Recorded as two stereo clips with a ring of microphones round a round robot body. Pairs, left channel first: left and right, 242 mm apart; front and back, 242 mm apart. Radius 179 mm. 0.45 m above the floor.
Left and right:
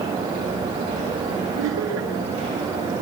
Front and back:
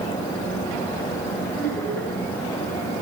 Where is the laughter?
85° right, 8 m.